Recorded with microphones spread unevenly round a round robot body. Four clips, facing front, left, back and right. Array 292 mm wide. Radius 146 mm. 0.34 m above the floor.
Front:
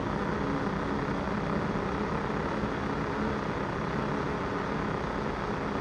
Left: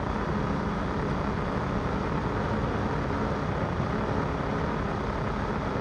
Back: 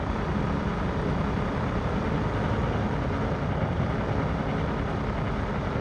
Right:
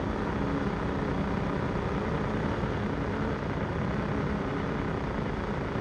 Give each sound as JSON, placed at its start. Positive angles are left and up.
{"t": 0.0, "sound": "a helicopter", "azimuth_deg": 175}